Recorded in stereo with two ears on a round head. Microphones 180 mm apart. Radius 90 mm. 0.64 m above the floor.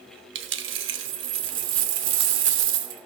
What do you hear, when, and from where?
0.3 s a dropped coin: 65° right (ahead or behind), 0.8 m